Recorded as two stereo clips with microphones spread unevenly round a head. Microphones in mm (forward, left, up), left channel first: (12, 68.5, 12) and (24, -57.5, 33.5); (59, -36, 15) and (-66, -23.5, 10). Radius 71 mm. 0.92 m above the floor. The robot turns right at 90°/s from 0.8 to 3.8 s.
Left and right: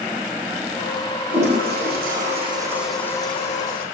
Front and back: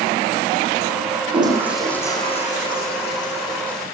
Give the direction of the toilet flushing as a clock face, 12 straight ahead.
5 o'clock.